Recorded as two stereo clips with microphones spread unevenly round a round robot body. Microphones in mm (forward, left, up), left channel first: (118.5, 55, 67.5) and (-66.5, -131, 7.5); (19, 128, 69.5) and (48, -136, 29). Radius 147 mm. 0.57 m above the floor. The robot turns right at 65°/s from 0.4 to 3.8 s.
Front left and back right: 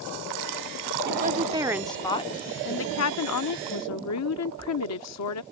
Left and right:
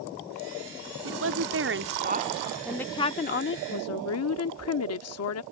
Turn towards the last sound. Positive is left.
turn(degrees=75)